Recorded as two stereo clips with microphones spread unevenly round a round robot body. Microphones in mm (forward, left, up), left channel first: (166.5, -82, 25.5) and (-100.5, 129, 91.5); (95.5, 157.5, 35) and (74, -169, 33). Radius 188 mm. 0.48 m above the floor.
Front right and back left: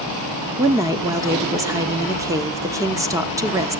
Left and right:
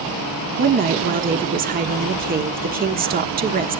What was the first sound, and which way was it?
A woman speaking, 125° right.